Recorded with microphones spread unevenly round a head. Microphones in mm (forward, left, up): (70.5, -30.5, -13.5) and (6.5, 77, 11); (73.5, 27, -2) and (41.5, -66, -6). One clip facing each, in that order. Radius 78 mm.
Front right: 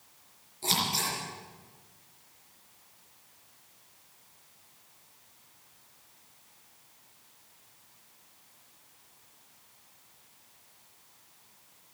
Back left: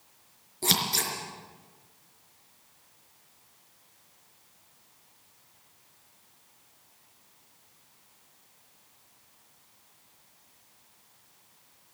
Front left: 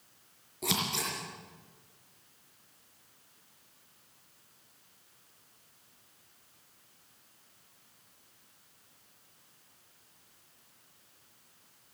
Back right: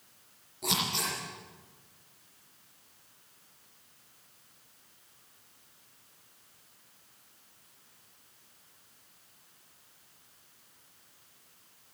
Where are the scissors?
125° left, 4 m.